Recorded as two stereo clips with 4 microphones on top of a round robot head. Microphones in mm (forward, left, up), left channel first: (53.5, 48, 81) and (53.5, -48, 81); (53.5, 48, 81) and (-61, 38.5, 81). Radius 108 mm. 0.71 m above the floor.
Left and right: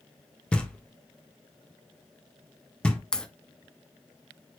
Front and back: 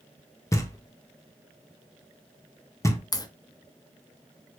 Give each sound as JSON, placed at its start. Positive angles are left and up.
{"t": 0.5, "sound": "knocking", "azimuth_deg": 20, "distance_m": 0.8}
{"t": 3.1, "sound": "a crack", "azimuth_deg": 15, "distance_m": 0.6}